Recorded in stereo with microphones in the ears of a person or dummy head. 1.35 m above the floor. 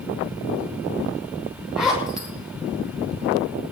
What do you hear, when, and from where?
1.8 s a zipper: 5° right (ahead or behind), 6.5 m